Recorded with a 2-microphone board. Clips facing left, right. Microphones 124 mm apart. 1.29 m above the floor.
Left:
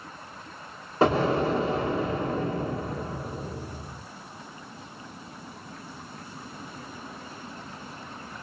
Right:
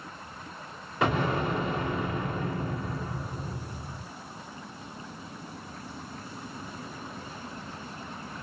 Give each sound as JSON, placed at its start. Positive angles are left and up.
{"t": 1.0, "sound": "an explosion", "side_deg": 35, "distance_m": 1.7}